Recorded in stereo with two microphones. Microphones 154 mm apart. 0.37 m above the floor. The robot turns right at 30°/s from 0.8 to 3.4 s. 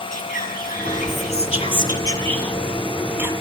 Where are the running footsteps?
I don't hear running footsteps.